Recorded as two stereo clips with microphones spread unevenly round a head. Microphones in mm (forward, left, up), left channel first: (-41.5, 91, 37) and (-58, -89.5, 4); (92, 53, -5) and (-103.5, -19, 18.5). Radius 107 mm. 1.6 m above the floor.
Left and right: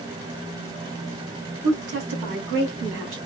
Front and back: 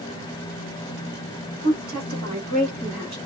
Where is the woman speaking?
115° right, 2 m; by 3.2 s 95° right, 1.4 m.